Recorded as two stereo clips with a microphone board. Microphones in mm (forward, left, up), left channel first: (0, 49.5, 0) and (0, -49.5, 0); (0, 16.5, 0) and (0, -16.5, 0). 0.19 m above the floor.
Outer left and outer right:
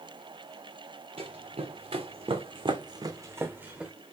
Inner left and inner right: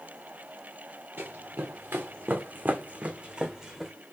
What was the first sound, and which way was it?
Running footsteps, 85° right.